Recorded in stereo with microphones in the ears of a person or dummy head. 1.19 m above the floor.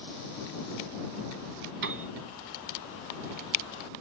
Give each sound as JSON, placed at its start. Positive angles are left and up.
{"t": 1.8, "sound": "a piano", "side_deg": -60}